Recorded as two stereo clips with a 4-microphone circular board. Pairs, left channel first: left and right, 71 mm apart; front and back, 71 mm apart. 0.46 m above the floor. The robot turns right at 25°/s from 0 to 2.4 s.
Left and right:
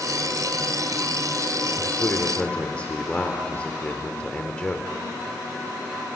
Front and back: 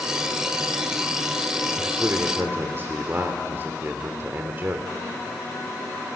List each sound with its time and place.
1.8 s a man speaking: 135° left, 1.6 m; by 4.9 s 150° left, 1.6 m